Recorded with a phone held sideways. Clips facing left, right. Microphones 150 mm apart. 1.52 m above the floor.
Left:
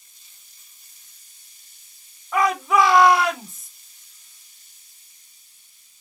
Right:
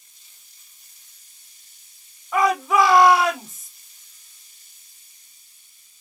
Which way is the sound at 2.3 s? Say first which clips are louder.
Right 1 dB; centre (ahead or behind).